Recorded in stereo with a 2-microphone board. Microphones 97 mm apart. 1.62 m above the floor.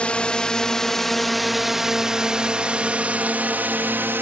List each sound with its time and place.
0.0 s a drone: 10° left (ahead or behind); by 4.2 s 20° right (ahead or behind)